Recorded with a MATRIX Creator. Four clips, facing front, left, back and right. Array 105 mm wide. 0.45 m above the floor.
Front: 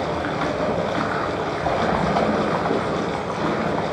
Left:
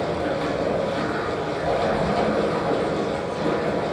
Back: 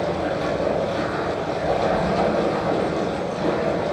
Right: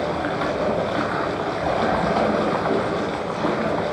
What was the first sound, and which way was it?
Running water, 40° right.